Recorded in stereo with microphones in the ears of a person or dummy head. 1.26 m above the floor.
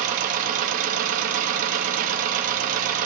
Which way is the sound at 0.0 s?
45° right (ahead or behind).